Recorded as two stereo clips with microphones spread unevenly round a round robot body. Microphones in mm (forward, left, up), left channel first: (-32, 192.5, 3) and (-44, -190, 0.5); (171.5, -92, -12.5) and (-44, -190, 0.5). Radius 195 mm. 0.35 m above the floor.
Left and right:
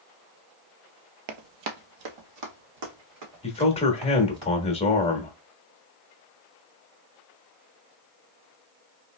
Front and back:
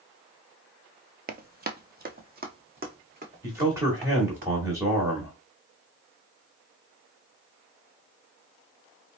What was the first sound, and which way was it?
Running footsteps, 105° right.